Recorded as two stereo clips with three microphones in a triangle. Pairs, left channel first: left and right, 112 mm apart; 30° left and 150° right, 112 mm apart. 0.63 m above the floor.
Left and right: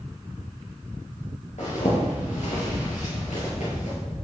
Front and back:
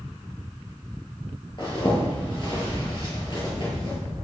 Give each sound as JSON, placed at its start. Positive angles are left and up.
{"t": 1.6, "sound": "a zipper", "azimuth_deg": 75, "distance_m": 4.0}